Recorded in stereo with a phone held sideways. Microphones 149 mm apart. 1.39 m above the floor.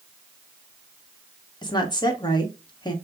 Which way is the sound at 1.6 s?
30° left (ahead or behind).